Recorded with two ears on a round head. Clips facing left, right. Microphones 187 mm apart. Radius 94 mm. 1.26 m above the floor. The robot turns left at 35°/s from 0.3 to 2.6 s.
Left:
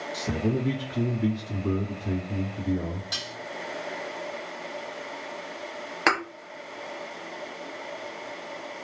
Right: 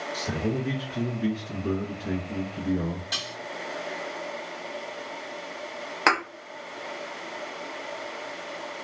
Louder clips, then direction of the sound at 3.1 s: Right 1 dB; 5° left (ahead or behind).